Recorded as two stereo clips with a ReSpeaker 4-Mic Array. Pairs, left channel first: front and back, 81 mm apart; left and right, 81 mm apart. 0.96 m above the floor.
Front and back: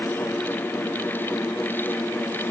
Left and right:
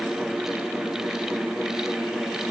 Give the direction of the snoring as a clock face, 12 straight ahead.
No snoring in this recording.